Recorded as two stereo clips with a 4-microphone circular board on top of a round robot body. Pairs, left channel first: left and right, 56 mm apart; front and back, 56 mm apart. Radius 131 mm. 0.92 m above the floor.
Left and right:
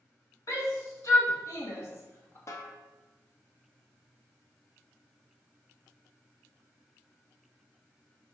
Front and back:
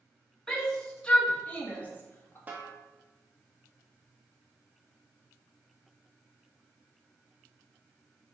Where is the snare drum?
120° left, 1.4 m.